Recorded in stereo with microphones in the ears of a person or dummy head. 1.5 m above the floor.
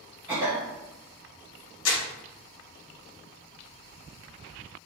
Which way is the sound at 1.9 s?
70° left (ahead or behind).